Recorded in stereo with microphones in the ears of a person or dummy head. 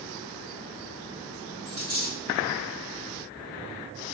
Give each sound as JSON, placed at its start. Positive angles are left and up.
{"t": 1.6, "sound": "a dropped coin", "side_deg": -15, "distance_m": 1.3}